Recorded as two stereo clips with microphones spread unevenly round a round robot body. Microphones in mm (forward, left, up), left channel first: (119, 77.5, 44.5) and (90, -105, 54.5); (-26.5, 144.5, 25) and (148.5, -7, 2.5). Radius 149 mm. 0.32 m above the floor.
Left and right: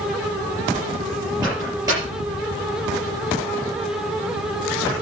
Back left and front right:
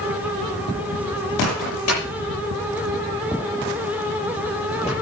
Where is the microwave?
175° right, 7 m.